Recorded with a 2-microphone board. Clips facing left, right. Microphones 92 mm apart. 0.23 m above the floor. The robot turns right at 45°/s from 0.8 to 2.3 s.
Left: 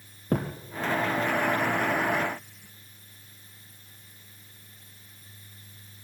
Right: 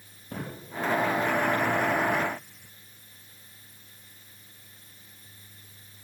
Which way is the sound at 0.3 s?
65° left (ahead or behind).